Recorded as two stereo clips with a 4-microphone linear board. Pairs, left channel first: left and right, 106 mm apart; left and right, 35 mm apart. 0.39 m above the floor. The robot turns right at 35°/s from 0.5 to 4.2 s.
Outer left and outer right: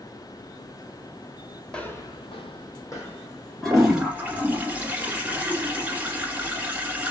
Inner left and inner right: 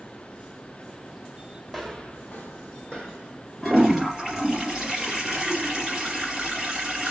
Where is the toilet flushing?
5° left (ahead or behind), 1.9 m; by 7.1 s 15° right (ahead or behind), 1.9 m.